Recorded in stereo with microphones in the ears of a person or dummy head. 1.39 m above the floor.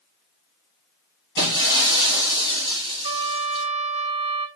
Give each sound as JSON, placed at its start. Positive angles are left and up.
{"t": 1.4, "sound": "breaking glass", "side_deg": -30, "distance_m": 6.0}
{"t": 3.0, "sound": "a trumpet", "side_deg": -40, "distance_m": 1.7}